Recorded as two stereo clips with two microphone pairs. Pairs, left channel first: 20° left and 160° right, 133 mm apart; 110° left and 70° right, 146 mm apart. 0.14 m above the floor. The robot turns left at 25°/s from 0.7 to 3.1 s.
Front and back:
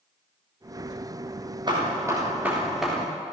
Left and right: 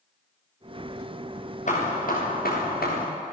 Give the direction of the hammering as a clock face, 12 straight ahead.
7 o'clock.